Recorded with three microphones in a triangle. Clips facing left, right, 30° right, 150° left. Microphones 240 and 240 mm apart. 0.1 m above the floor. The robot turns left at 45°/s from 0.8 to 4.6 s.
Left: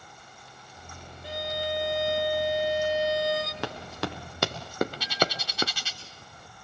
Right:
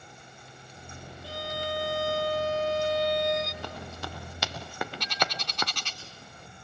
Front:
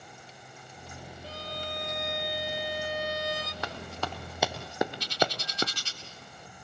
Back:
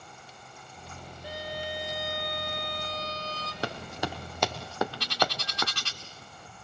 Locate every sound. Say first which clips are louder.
1.2 s a violin: left 3 dB, back 4 dB; 105° left, 1.3 m; by 3.5 s straight ahead, 1.3 m
3.6 s running footsteps: left 6 dB, back 8 dB; 95° left, 3.5 m; by 5.7 s 25° left, 1.2 m
5.0 s a bird: left 5 dB, front 1 dB; 175° left, 1.8 m